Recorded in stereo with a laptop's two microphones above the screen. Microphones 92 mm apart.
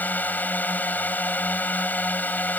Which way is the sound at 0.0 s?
20° left (ahead or behind).